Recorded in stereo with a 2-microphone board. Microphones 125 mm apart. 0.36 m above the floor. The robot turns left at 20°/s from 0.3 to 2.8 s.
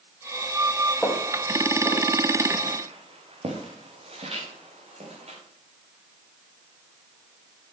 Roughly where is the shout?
No shout in this recording.